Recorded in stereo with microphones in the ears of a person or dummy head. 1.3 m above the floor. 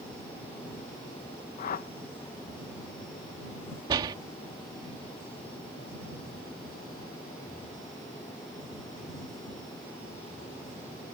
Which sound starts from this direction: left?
A whoosh, at 1.6 s.